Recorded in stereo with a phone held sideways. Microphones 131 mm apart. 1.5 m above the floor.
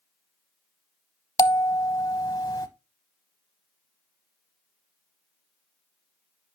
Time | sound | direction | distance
1.4 | a bell | 25° left (ahead or behind) | 0.9 m